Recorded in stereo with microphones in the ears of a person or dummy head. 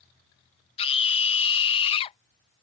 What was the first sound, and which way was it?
A scream, 35° left (ahead or behind).